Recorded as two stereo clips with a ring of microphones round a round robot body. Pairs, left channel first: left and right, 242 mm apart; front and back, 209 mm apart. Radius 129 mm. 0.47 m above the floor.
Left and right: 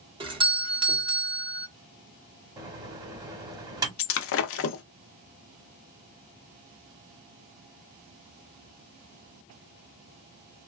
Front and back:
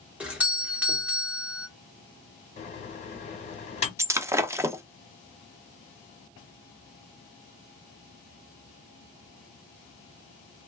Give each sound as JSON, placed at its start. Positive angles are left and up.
{"t": 0.2, "sound": "a doorbell", "azimuth_deg": -105, "distance_m": 1.1}
{"t": 2.6, "sound": "a microwave", "azimuth_deg": -25, "distance_m": 1.2}
{"t": 4.0, "sound": "breaking glass", "azimuth_deg": 105, "distance_m": 0.6}